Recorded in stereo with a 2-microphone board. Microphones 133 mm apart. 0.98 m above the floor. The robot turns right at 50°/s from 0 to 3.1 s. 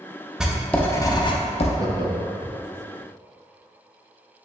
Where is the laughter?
25° right (ahead or behind), 0.6 m; by 2.6 s 40° right (ahead or behind), 0.6 m.